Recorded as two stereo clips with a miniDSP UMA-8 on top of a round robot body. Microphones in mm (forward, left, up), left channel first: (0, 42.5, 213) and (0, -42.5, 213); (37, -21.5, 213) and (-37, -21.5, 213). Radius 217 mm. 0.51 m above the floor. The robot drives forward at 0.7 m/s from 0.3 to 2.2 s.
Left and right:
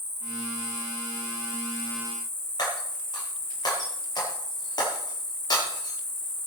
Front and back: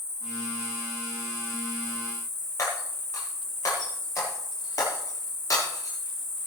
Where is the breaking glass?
45° left, 6 m.